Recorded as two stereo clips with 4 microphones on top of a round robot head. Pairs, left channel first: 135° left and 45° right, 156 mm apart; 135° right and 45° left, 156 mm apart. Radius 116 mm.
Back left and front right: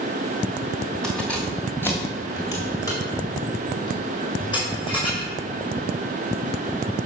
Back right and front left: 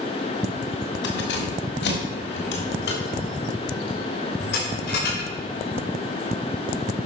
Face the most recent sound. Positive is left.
turn(degrees=-165)